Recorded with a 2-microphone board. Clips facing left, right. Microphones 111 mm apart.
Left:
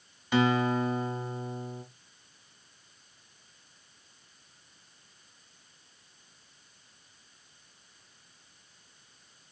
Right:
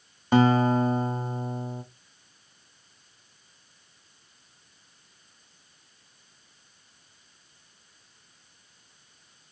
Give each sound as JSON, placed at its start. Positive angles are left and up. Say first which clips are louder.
{"t": 0.3, "sound": "a guitar", "louder": "right 5 dB", "side_deg": -40, "distance_m": 1.1}